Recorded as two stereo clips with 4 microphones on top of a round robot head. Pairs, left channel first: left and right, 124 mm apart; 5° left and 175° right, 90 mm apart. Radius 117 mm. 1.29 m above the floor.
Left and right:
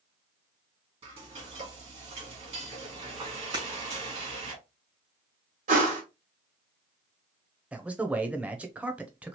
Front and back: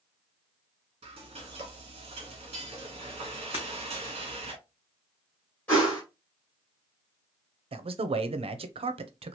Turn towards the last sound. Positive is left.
turn(degrees=-170)